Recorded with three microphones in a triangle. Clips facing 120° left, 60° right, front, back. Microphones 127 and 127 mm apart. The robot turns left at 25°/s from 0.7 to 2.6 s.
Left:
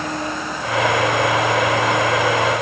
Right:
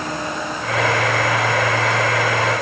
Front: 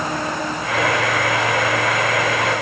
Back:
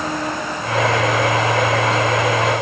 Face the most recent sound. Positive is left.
No sound to turn to.